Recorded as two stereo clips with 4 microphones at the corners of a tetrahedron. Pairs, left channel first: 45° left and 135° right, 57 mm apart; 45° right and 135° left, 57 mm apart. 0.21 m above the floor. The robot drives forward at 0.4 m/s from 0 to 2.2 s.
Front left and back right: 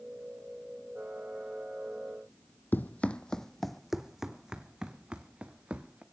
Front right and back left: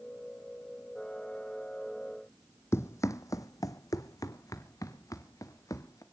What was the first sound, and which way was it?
Running footsteps, 5° right.